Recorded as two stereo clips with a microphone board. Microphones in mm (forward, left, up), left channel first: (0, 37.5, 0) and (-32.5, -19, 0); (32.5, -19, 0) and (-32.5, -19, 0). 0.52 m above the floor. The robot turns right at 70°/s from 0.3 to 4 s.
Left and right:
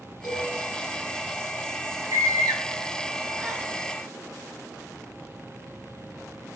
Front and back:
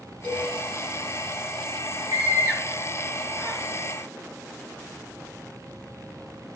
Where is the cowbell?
115° left, 6.5 m; by 0.5 s 125° left, 6.5 m.